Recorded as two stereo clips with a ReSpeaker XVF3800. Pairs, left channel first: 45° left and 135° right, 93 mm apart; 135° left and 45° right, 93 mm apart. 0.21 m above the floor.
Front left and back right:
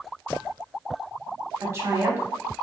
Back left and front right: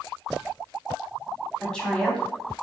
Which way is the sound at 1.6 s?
150° right.